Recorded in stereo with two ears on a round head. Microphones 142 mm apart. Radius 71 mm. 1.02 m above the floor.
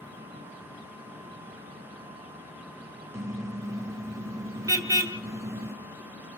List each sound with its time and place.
3.1 s a car horn: 20° right (ahead or behind), 2 m